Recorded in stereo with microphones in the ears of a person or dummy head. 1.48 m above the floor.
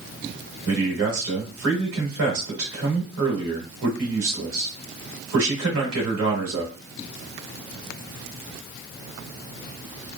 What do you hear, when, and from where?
0.7 s a man speaking: 75° right (ahead or behind), 1.6 m